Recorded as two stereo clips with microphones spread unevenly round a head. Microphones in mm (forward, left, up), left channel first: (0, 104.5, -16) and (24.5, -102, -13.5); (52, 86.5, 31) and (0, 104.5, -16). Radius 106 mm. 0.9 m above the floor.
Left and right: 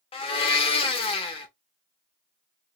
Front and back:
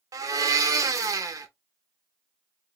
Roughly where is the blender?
Behind.